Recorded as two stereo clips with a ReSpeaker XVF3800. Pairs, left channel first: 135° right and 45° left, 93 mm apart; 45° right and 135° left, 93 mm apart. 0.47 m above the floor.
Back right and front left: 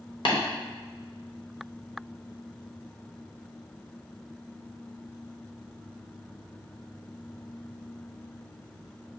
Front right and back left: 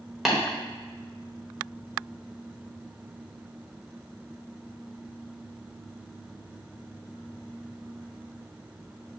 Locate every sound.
0.2 s tapping: 140° right, 1.1 m